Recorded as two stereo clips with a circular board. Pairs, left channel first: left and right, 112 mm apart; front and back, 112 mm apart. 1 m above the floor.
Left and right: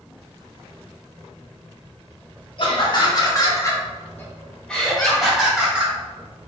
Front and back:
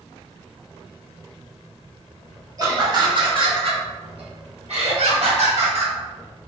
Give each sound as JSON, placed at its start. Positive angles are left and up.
{"t": 2.6, "sound": "laughter", "azimuth_deg": 125, "distance_m": 1.5}